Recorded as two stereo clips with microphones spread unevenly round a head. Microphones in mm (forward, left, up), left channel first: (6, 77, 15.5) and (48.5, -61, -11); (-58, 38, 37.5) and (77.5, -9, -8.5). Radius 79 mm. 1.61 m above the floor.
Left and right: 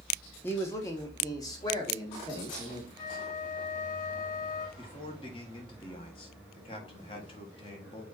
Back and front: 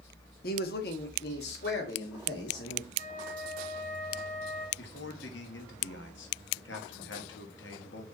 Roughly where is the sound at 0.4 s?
Behind.